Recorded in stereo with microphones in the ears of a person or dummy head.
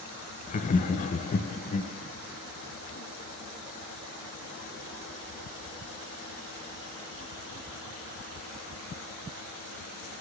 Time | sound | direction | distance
0.5 | laughter | 45° left (ahead or behind) | 0.6 m